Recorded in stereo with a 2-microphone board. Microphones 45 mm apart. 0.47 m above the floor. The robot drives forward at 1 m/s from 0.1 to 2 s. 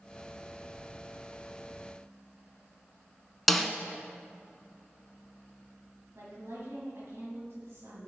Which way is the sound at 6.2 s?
75° right (ahead or behind).